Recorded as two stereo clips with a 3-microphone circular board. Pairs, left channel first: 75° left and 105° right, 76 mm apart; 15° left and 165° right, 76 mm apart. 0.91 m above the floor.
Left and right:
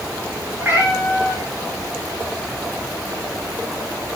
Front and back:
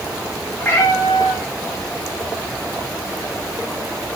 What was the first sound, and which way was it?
A cat meowing, 45° right.